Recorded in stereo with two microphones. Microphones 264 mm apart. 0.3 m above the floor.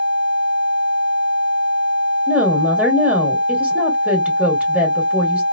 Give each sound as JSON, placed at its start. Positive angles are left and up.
{"t": 2.3, "sound": "a woman speaking", "side_deg": -5, "distance_m": 1.3}